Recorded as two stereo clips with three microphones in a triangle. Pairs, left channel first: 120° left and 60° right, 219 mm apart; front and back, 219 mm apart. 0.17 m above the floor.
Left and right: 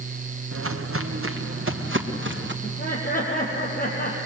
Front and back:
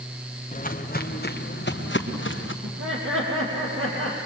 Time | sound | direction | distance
0.5 | footsteps | 55° right | 2.5 m
2.6 | laughter | 170° left | 6.5 m